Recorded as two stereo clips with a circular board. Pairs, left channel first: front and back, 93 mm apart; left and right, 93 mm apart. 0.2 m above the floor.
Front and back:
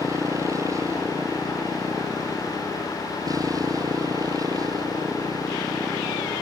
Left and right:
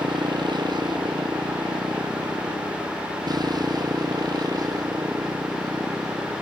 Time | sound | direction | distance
0.0 | a motorcycle | 125° right | ?